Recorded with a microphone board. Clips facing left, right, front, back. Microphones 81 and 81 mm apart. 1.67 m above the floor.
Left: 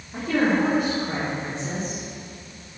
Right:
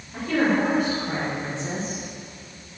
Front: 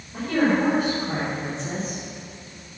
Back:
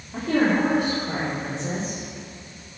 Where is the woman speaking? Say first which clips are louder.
Even, even; 165° left, 3.5 m; by 2.0 s straight behind, 6 m.